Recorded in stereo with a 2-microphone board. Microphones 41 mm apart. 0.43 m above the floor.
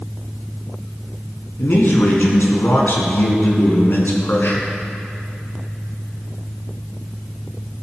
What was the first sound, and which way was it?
A man speaking, 55° left (ahead or behind).